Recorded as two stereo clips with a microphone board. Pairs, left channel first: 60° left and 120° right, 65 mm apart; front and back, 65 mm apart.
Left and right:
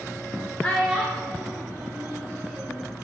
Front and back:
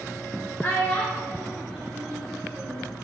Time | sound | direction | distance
0.6 | a child speaking | 5° right | 1.3 m